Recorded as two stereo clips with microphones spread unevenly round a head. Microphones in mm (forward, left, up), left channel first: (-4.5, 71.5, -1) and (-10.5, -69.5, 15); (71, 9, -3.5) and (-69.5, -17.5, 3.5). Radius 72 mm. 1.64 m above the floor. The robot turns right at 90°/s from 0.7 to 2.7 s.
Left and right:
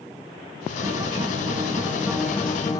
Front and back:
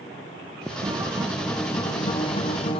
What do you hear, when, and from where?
0.8 s a guitar: 140° right, 0.6 m; by 2.8 s 30° left, 0.6 m